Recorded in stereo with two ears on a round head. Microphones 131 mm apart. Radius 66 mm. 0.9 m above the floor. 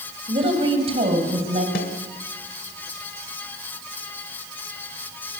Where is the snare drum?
65° left (ahead or behind), 1.4 m.